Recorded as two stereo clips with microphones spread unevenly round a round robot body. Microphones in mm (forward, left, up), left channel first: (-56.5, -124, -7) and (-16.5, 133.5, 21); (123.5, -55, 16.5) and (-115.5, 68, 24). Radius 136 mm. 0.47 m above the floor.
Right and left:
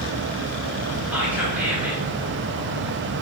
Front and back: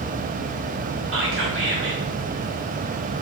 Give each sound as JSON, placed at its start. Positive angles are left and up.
{"t": 1.1, "sound": "whispering", "azimuth_deg": 170, "distance_m": 1.1}